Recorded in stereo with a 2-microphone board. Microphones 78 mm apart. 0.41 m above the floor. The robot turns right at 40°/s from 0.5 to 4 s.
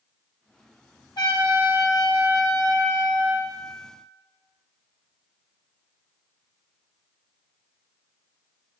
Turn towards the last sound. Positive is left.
turn(degrees=-170)